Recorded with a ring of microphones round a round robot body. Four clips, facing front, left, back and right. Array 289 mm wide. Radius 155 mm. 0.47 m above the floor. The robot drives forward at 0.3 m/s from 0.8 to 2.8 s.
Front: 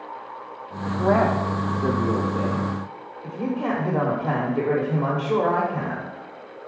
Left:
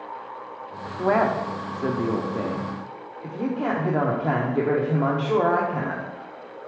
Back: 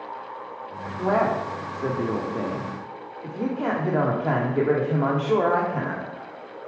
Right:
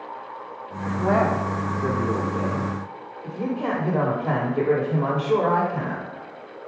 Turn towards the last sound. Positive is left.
turn(degrees=140)